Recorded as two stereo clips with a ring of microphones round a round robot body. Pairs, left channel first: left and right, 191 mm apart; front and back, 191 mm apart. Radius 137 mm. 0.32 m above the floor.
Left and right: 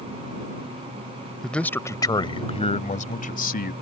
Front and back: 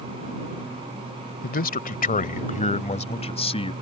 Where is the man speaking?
5° left; by 3.7 s 60° left.